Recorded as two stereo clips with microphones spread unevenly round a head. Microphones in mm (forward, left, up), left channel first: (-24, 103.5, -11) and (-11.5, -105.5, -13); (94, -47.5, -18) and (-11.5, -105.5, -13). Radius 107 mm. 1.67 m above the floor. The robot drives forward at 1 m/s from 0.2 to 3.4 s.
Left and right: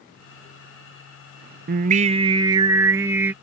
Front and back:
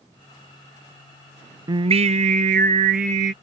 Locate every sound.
1.7 s singing: 110° right; by 3.3 s 165° right